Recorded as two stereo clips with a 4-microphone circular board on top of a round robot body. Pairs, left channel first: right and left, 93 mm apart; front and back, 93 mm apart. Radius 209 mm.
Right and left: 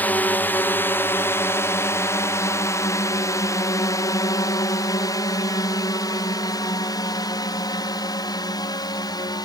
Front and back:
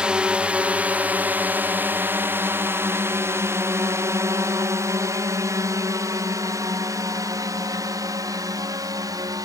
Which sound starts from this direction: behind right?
A drone, at 0.0 s.